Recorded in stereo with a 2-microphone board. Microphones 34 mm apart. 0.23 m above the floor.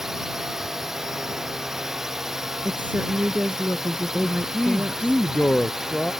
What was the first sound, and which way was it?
A drone, 10° right (ahead or behind).